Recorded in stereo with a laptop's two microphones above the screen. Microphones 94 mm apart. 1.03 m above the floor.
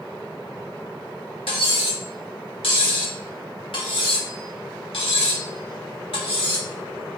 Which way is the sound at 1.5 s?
75° left (ahead or behind).